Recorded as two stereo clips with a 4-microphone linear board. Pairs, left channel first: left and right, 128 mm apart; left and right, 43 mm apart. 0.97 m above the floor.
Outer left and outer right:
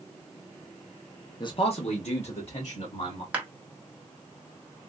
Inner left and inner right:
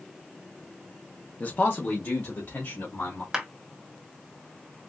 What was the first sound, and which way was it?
A man speaking, 35° left (ahead or behind).